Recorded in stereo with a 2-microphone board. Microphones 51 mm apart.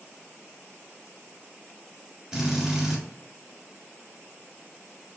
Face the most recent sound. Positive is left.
turn(degrees=-15)  # may be behind; listen again after turning